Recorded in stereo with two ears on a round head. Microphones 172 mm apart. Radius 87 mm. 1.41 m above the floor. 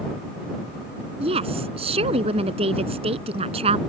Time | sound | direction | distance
1.2 | a woman speaking | 30° right (ahead or behind) | ?